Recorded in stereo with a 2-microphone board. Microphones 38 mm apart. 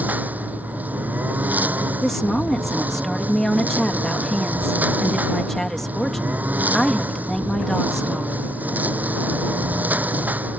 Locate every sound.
0.0 s a lawn mower: 50° right (ahead or behind)
2.0 s a woman speaking: 5° left (ahead or behind)